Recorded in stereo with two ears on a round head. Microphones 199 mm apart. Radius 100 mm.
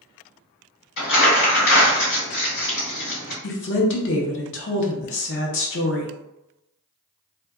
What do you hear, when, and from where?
1.0 s crumpling: 55° left (ahead or behind), 1.9 m
3.4 s a woman speaking: 55° left (ahead or behind), 0.6 m